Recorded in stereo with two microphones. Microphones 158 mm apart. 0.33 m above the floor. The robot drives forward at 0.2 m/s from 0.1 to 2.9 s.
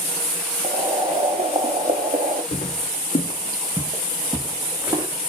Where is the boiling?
35° right (ahead or behind), 0.7 m; by 2.4 s 60° right (ahead or behind), 0.5 m.